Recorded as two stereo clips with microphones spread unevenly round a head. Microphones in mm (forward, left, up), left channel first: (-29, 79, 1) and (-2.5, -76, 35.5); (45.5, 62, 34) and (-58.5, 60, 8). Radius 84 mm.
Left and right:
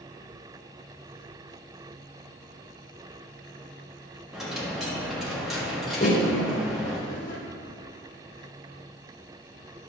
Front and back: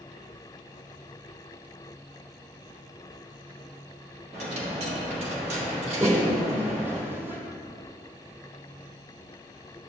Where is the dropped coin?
155° right, 1.3 m.